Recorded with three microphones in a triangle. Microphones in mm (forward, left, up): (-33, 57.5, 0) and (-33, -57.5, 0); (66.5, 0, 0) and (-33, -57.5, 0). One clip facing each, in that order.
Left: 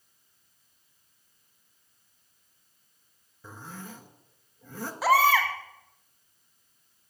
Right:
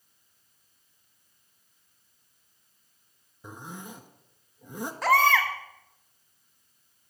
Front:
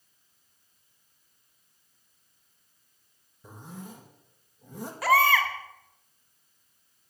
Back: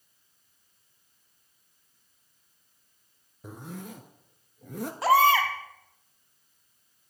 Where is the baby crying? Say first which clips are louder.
Left 1 dB, back 2 dB; 170° left, 1.3 m.